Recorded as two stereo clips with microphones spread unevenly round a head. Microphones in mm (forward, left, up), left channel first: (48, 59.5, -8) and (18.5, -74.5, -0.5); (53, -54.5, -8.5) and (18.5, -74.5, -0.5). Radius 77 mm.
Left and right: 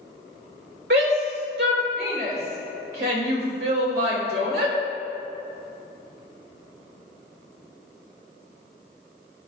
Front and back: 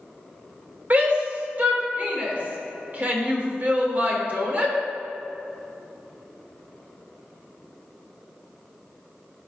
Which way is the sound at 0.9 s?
105° right.